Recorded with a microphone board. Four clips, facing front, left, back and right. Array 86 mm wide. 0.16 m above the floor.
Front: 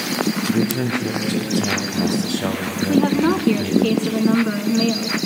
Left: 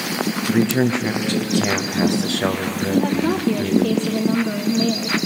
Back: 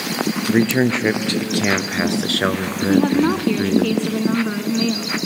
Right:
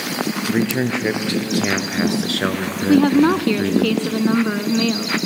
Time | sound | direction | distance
0.5 | a man speaking | 170° right | 3 m
2.9 | a woman speaking | 90° right | 1.3 m